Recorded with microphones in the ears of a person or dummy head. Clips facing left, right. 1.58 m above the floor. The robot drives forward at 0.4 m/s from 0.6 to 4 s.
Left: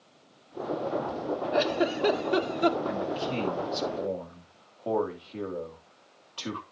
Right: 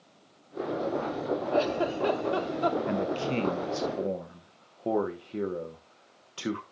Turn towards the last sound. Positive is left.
turn(degrees=-20)  # may be behind; listen again after turning